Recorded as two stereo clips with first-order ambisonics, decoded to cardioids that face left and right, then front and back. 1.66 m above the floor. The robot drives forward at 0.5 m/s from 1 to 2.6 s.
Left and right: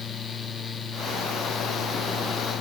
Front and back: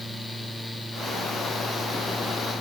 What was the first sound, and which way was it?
Only background noise.